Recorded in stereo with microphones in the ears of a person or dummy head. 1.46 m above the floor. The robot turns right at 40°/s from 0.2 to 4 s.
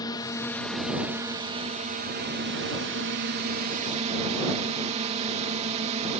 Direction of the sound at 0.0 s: 160° left.